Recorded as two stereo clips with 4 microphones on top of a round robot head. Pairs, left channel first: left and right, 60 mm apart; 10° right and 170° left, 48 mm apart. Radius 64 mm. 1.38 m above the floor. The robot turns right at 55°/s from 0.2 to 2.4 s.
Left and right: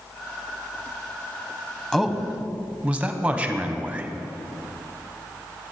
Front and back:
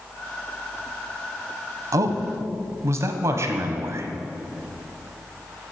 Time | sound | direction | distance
1.9 | a man speaking | 170° left | 1.0 m